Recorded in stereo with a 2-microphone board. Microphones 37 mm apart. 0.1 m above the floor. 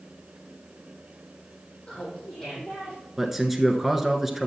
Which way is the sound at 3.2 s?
5° right (ahead or behind).